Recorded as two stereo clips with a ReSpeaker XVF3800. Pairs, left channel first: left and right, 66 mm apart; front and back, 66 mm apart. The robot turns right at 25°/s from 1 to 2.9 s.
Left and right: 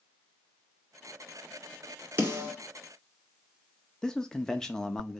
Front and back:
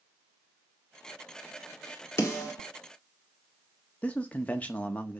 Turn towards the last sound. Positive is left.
turn(degrees=25)